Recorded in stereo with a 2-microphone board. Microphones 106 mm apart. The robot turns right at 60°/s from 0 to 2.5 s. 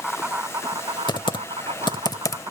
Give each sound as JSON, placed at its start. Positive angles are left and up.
{"t": 0.0, "sound": "an insect", "azimuth_deg": 180}
{"t": 1.1, "sound": "typing on a keyboard", "side_deg": 45}